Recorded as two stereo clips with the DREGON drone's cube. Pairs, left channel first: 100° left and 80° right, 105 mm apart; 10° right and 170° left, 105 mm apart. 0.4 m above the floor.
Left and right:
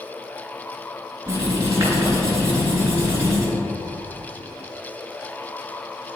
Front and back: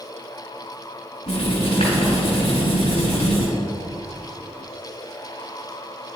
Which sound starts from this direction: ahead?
Writing, at 1.3 s.